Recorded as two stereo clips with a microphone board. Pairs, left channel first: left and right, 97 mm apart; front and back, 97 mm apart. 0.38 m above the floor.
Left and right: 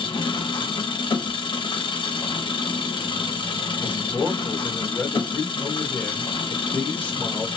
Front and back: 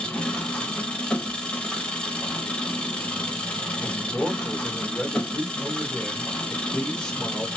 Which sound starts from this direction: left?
An engine running, at 0.0 s.